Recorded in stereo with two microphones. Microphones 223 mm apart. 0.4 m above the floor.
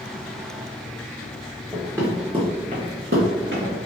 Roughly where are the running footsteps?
Centre.